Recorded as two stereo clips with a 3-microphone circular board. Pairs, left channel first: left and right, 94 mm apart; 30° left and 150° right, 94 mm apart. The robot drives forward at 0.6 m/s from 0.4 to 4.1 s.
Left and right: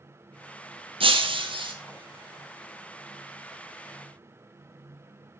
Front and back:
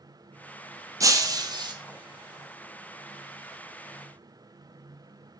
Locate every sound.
1.0 s breaking glass: 100° right, 1.5 m; by 1.8 s 115° right, 1.6 m